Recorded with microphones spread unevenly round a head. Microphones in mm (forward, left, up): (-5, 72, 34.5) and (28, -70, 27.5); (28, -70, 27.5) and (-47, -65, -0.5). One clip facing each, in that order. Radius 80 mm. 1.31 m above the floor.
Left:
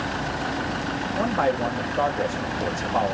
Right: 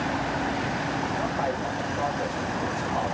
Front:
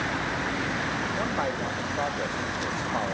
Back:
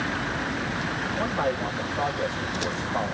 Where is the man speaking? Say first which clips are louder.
Left 5 dB, back 5 dB; 85° left, 2.5 m.